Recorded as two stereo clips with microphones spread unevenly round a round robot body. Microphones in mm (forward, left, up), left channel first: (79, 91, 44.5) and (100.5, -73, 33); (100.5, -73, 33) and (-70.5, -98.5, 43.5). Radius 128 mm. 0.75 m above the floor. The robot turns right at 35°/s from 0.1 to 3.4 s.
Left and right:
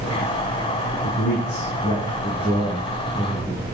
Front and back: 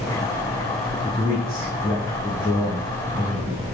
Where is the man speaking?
75° left, 6.5 m; by 3.6 s 155° left, 6.5 m.